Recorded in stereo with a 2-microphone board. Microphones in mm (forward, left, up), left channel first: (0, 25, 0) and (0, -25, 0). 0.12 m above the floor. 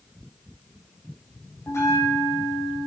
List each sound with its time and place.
1.7 s a bell: 75° left (ahead or behind), 6.5 m